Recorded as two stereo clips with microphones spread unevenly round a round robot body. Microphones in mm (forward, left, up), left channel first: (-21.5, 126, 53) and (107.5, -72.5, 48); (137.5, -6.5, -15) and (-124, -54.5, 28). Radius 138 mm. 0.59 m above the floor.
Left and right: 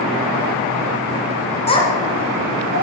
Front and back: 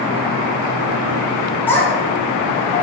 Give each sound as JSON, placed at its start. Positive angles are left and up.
{"t": 1.7, "sound": "a child speaking", "azimuth_deg": 75, "distance_m": 0.6}